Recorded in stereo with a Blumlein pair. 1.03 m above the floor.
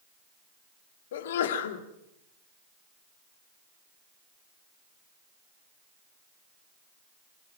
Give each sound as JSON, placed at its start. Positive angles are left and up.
{"t": 1.1, "sound": "a sneeze", "azimuth_deg": 60, "distance_m": 2.5}